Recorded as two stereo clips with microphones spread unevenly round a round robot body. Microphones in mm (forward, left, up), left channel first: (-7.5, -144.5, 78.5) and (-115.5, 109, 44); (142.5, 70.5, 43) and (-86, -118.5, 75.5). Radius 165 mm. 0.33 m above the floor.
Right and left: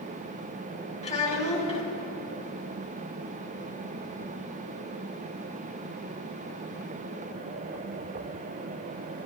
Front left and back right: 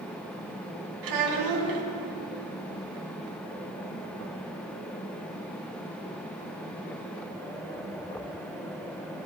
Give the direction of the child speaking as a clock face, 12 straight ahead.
5 o'clock.